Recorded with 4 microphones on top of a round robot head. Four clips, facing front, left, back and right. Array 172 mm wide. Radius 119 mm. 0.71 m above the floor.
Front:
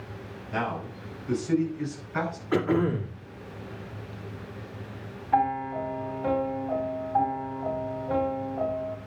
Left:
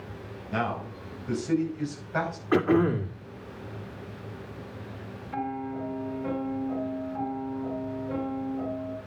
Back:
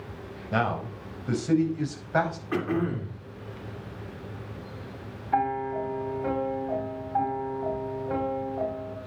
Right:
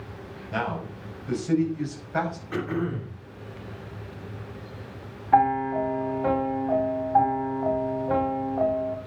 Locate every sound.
0.5 s a man speaking: 175° right, 4.5 m; by 2.4 s 175° left, 5 m
2.5 s throat clearing: 80° left, 2.5 m
5.3 s a piano: 80° right, 1.9 m